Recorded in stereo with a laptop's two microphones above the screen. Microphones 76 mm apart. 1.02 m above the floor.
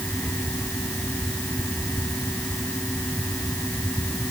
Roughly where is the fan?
Left.